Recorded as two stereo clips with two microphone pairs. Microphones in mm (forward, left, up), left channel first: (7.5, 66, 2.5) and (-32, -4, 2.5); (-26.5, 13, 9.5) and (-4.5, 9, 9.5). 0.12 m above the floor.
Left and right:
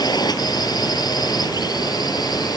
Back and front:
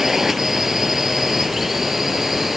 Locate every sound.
0.0 s a drone: 60° left; by 2.6 s 65° left